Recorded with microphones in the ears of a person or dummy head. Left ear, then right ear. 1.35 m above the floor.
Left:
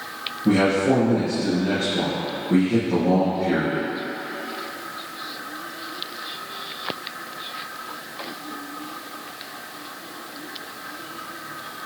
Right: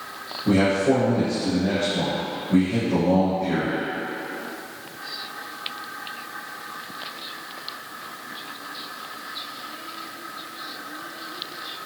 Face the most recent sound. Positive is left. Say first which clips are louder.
# left 1 dB
turn(degrees=85)